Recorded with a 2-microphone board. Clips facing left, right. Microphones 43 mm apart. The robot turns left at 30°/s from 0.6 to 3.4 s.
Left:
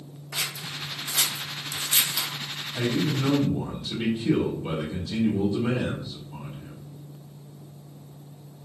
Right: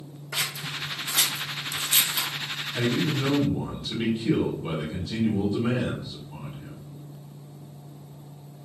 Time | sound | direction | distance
0.3 | scissors | 75° right (ahead or behind) | 0.6 m
2.7 | a man speaking | 35° right (ahead or behind) | 1.5 m